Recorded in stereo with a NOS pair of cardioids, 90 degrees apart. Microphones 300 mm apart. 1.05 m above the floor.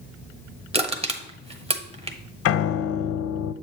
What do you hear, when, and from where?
0.7 s crushing: 20° right, 1.1 m
2.5 s a piano: 50° left, 0.5 m